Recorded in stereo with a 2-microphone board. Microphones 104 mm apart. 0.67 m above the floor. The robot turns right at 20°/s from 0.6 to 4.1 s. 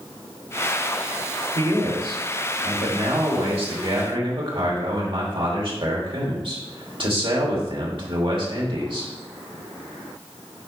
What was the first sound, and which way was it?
A man speaking, 115° right.